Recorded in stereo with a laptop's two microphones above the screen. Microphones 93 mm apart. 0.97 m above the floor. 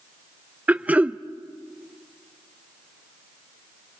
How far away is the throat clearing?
About 0.6 m.